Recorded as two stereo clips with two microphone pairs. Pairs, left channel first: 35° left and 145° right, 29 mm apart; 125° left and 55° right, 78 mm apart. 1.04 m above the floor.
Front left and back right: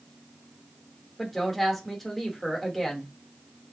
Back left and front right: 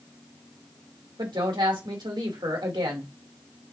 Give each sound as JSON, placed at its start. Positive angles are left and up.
{"t": 1.2, "sound": "a woman speaking", "azimuth_deg": -50, "distance_m": 1.8}